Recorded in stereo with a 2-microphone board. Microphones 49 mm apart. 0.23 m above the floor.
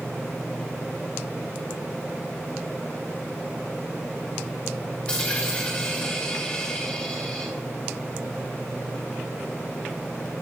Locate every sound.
5.1 s a dropped coin: 15° left (ahead or behind), 3.5 m